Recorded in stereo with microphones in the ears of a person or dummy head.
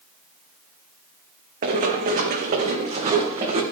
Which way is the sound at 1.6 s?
45° right (ahead or behind).